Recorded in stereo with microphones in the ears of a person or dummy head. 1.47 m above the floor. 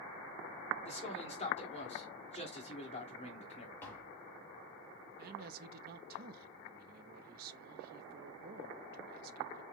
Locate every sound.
0.8 s a man speaking: 40° left (ahead or behind), 1.9 m
3.8 s tapping: 10° left (ahead or behind), 1.6 m
5.2 s a man speaking: 50° right (ahead or behind), 0.7 m